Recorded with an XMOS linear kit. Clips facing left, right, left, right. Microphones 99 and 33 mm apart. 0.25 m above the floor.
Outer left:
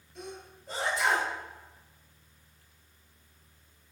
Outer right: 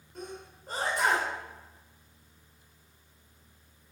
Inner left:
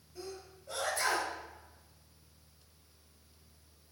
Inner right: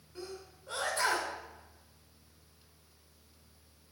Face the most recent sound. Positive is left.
turn(degrees=-50)  # may be behind; listen again after turning